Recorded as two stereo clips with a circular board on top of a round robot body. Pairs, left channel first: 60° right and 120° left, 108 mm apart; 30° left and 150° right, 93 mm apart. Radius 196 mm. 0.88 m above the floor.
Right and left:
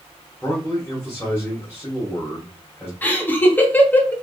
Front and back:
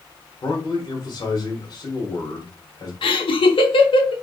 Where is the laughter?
10° left, 0.8 m.